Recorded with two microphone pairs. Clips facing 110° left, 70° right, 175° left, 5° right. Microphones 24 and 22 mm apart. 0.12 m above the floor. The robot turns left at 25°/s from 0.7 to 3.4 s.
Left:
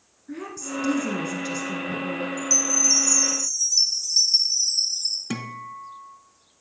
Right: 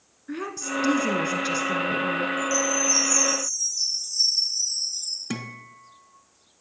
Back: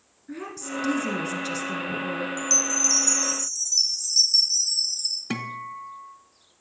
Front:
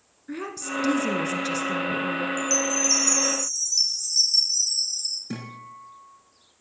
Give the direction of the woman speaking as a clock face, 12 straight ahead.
2 o'clock.